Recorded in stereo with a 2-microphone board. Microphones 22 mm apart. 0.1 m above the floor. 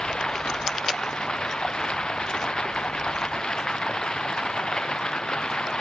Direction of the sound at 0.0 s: 45° left (ahead or behind).